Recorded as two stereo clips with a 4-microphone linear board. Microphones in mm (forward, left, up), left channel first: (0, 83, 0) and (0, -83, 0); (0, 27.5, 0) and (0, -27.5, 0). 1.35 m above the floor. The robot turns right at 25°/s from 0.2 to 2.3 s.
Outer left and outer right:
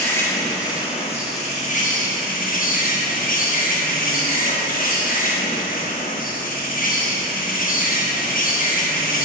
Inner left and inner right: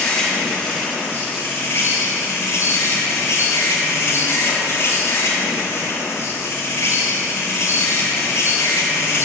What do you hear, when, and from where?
0.0 s an insect: 20° left, 1.3 m; by 9.2 s 70° left, 1.3 m